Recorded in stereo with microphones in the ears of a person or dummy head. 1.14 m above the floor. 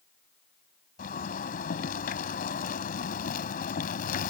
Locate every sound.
1.0 s a zipper: 50° left (ahead or behind)